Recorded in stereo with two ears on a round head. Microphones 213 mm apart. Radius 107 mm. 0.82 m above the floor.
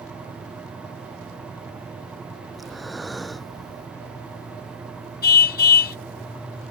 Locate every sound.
2.5 s breathing: centre (ahead or behind)
5.2 s a car horn: 40° left (ahead or behind)